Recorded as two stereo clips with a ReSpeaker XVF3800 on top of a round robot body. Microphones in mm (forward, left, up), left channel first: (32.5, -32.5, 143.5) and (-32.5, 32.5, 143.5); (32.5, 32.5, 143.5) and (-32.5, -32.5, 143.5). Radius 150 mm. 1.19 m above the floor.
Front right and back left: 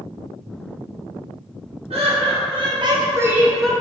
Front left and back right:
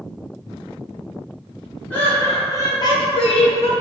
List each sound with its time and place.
1.9 s laughter: 120° left, 1.3 m; by 3.7 s 40° left, 0.7 m